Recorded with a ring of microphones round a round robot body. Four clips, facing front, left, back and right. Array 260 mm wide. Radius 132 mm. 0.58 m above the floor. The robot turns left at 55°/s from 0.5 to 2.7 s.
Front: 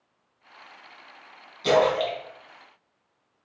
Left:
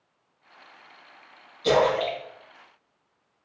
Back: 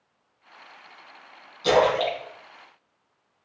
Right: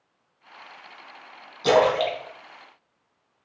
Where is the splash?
70° right, 3 m; by 2.2 s 95° right, 3 m.